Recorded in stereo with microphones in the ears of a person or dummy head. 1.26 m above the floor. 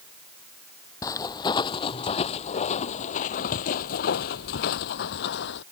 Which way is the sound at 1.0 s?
20° left (ahead or behind).